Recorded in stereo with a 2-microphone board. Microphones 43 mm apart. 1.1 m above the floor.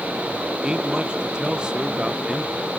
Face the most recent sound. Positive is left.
turn(degrees=-20)  # may be behind; listen again after turning